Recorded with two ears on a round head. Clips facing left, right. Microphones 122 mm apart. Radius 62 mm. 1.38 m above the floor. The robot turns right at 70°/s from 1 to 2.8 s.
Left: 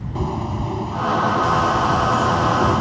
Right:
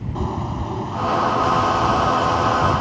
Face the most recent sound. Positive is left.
turn(degrees=135)